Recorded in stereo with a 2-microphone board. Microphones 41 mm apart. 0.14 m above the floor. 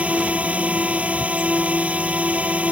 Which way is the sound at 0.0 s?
35° right (ahead or behind).